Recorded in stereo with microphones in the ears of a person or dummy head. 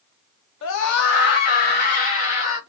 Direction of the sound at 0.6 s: 70° left (ahead or behind).